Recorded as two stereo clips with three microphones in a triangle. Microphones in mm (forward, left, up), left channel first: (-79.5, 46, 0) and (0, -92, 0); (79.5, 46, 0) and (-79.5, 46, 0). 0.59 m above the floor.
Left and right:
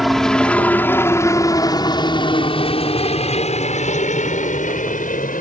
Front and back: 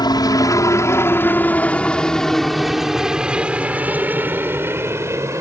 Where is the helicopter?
30° left; by 5.4 s 110° left.